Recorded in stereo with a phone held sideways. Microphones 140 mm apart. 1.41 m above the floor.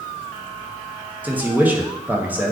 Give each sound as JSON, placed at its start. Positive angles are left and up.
{"t": 1.2, "sound": "a man speaking", "side_deg": -10, "distance_m": 0.7}